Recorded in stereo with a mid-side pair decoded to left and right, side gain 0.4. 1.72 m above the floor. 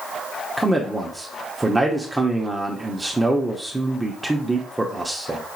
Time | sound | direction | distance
0.6 | a man speaking | 15° right | 0.8 m